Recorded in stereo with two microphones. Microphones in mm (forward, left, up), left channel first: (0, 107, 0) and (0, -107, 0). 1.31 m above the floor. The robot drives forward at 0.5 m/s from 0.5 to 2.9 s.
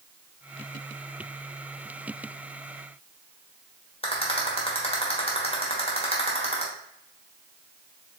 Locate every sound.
4.0 s a rattle: 25° left (ahead or behind), 1.2 m